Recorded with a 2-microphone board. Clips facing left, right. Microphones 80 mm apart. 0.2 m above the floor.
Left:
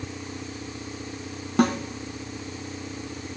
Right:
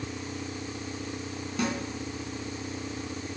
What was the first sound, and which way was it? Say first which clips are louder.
A snare drum: left 9 dB; 55° left (ahead or behind).